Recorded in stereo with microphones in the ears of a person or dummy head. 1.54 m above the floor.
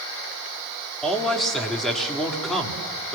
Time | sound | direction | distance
1.0 | a man speaking | centre (ahead or behind) | 3.5 m